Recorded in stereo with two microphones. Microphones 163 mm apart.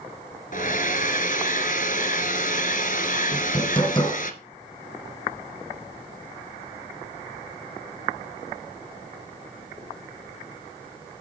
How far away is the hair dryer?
About 1.6 m.